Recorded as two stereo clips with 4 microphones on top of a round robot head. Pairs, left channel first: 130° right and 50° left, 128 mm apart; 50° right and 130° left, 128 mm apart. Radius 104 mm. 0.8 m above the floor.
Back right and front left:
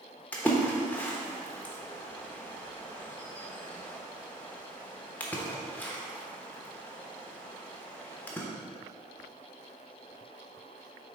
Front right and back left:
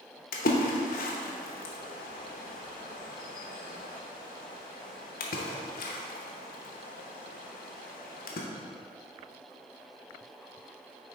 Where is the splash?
55° right, 0.8 m.